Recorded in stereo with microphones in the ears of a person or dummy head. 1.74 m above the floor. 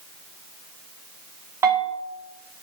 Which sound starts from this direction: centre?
A bell, at 1.6 s.